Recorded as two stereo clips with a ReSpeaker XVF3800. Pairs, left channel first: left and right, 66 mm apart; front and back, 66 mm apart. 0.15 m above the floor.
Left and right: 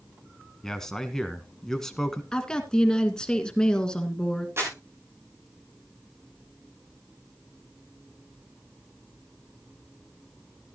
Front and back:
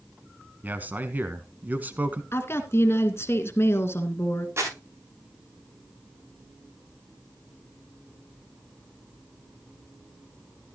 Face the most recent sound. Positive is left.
turn(degrees=-135)